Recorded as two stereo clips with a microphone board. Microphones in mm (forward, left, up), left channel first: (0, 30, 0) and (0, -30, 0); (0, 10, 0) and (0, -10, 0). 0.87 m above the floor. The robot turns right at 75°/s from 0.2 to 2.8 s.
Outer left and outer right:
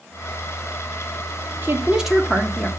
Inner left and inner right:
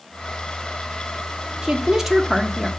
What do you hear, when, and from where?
1.6 s a woman speaking: 40° right, 2 m; by 2.7 s 40° left, 2 m